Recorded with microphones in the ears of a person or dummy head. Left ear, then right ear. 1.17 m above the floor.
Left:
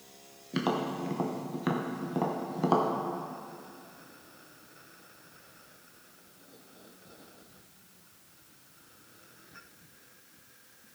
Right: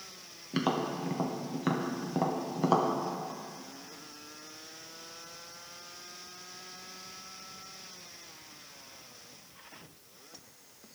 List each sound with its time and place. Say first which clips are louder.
0.5 s tapping: even; centre (ahead or behind), 0.7 m